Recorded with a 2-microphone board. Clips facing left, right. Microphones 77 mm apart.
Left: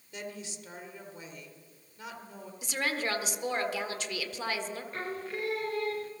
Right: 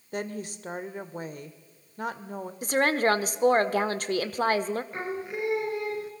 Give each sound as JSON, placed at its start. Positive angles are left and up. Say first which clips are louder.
{"t": 0.1, "sound": "a woman speaking", "louder": "right 8 dB", "side_deg": -45, "distance_m": 1.6}
{"t": 2.6, "sound": "a woman speaking", "louder": "right 9 dB", "side_deg": -45, "distance_m": 1.3}
{"t": 4.9, "sound": "singing", "louder": "right 4 dB", "side_deg": -15, "distance_m": 2.0}